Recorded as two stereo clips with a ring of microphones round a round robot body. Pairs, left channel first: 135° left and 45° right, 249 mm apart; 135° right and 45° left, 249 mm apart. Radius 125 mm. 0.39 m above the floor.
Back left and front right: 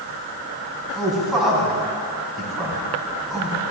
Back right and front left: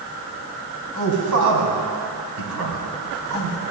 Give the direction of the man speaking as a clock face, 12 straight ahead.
11 o'clock.